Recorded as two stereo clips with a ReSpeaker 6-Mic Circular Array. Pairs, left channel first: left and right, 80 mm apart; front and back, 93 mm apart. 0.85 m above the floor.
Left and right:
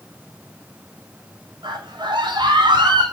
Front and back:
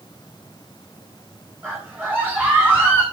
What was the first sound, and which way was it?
A scream, 110° right.